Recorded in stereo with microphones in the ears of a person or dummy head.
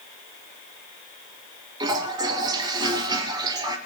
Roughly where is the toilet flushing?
Right.